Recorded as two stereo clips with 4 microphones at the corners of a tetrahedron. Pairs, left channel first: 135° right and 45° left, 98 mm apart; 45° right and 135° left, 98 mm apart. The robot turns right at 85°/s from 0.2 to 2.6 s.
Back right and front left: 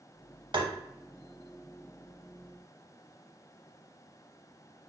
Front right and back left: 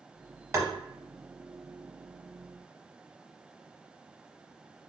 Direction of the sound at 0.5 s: 75° left.